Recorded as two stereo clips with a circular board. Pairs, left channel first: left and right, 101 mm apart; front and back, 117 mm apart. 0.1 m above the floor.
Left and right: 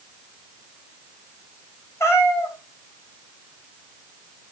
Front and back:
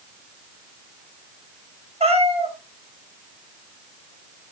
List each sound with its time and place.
2.0 s a cat meowing: 155° left, 3 m